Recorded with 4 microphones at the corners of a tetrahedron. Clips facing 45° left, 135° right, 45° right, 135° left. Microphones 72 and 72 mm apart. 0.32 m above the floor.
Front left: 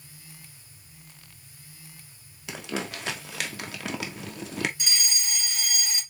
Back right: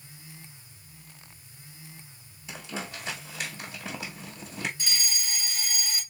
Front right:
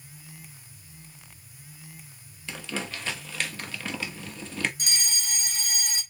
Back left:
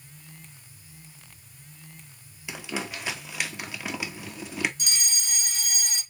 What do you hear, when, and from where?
2.5 s crumpling: 60° left, 1.0 m
4.8 s a fire alarm: 20° right, 2.5 m